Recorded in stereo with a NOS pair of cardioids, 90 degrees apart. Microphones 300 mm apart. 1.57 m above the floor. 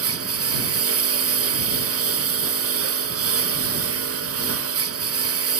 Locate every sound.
0.0 s a lawn mower: 50° right